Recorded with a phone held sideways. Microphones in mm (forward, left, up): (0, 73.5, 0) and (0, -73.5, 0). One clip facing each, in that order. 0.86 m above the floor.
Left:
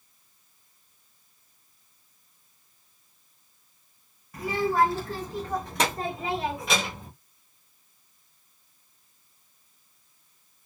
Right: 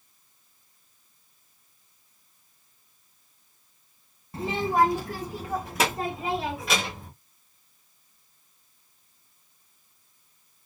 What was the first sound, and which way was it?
A child speaking, 30° right (ahead or behind).